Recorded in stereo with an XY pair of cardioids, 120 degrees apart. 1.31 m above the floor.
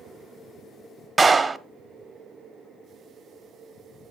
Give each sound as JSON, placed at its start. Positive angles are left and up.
{"t": 1.2, "sound": "a clap", "azimuth_deg": -20, "distance_m": 0.7}